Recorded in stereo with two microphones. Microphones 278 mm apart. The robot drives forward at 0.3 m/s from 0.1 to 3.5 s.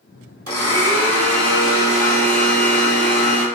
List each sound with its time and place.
0.5 s a blender: 60° right (ahead or behind), 1.8 m; by 3.5 s 45° right (ahead or behind), 2 m